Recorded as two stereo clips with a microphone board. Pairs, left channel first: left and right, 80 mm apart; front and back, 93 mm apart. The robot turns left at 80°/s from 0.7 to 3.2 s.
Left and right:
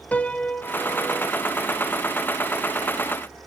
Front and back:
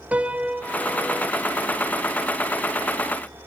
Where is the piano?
130° left, 0.7 m; by 1.3 s 80° left, 0.7 m.